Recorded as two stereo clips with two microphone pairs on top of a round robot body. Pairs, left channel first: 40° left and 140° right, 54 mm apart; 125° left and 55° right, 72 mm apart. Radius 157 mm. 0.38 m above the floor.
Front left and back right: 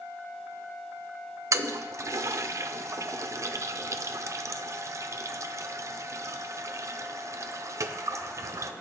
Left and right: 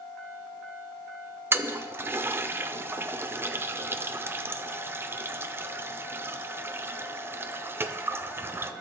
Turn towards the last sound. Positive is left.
turn(degrees=-115)